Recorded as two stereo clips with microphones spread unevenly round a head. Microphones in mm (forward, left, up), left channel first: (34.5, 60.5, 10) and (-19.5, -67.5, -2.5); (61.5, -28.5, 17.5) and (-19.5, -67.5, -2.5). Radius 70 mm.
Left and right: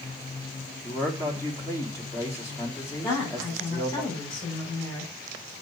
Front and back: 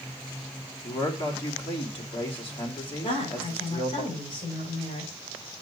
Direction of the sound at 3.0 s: 10° left.